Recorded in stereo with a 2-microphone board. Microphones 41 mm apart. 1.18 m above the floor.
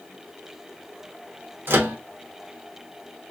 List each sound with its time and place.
1.7 s a microwave: 65° right (ahead or behind), 1.0 m